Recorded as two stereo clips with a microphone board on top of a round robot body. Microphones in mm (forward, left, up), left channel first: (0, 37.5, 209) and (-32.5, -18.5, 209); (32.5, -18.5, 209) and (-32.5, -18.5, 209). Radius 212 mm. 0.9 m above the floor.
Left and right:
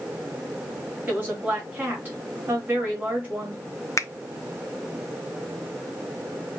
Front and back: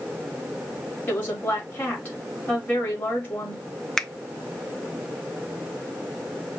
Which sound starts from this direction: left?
A finger snap, at 4.0 s.